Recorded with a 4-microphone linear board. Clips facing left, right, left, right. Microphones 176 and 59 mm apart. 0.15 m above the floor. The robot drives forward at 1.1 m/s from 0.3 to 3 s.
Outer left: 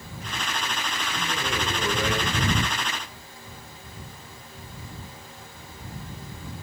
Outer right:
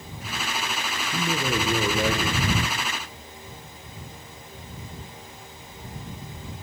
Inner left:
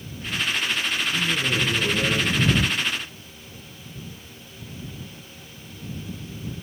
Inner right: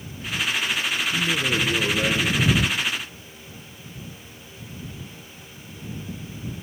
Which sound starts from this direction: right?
A man speaking, at 1.1 s.